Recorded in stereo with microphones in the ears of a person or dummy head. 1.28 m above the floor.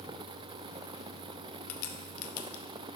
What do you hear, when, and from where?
1.7 s a crack: 55° left (ahead or behind), 0.6 m